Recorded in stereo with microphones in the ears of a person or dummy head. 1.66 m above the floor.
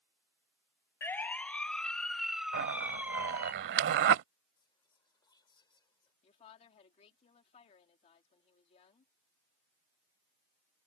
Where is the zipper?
55° right (ahead or behind).